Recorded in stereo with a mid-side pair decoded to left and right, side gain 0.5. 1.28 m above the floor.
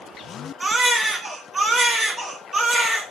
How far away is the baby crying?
About 3 m.